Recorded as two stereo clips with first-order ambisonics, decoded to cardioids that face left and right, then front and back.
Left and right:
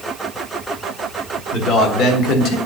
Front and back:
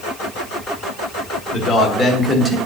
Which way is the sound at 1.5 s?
50° left.